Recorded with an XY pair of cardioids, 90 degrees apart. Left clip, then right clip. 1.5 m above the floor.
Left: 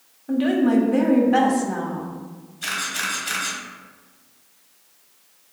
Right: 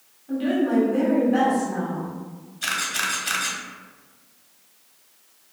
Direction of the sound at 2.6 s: 35° right.